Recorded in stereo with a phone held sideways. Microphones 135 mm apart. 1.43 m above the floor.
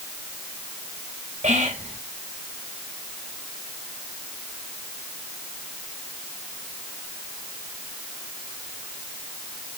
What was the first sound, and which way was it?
Whispering, 65° right (ahead or behind).